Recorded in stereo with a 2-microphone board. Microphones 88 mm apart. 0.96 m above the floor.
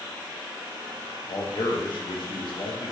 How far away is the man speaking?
About 0.7 m.